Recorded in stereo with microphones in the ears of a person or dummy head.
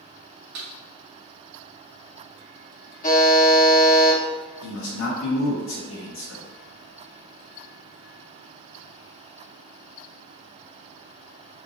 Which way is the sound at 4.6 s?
70° left (ahead or behind).